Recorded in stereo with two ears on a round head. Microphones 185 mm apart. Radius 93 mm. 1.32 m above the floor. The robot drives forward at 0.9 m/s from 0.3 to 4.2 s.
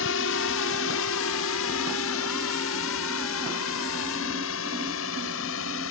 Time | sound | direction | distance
0.0 | a drone | 70° left (ahead or behind) | ?